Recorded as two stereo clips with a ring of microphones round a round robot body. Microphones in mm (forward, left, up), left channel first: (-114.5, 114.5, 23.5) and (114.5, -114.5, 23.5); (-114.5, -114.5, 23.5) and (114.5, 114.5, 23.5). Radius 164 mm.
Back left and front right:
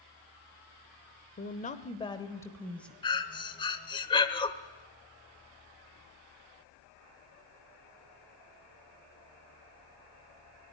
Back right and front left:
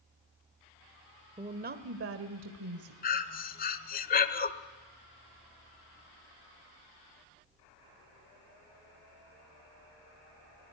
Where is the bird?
I don't hear a bird.